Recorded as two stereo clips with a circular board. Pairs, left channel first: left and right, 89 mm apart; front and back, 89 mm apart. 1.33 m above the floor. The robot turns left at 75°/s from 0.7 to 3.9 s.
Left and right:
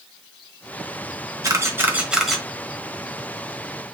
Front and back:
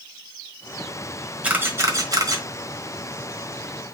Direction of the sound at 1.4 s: 115° right.